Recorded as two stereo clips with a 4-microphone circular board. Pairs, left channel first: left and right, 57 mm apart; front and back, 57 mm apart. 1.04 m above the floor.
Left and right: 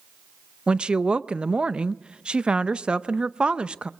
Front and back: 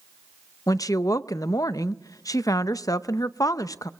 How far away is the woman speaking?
About 0.6 m.